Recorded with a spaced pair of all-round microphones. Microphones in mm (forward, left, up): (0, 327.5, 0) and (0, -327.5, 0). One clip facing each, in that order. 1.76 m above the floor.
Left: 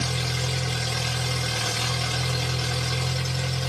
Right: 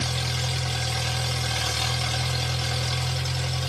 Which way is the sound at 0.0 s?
70° left (ahead or behind).